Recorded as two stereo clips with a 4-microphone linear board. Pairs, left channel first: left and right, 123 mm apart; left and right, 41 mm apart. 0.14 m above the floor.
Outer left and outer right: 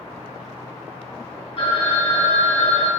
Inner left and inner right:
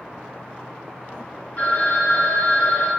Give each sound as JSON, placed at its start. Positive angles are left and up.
{"t": 1.6, "sound": "a phone ringing", "side_deg": 45, "distance_m": 1.1}